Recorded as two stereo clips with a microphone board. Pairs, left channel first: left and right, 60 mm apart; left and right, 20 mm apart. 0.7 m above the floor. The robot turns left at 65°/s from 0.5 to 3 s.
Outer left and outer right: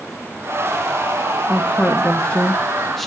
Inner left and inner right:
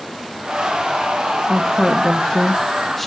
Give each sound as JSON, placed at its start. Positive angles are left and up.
{"t": 1.5, "sound": "a woman speaking", "side_deg": 20, "distance_m": 0.7}